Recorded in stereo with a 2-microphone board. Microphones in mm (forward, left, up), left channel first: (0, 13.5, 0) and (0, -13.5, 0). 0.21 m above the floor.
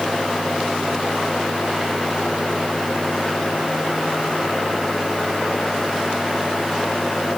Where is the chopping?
No chopping in this recording.